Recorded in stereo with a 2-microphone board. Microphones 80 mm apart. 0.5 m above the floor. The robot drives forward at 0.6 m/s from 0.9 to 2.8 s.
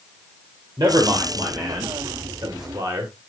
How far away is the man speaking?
About 2 m.